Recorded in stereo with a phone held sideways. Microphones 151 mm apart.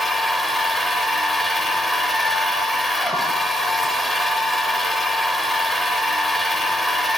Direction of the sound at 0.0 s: Centre (ahead or behind).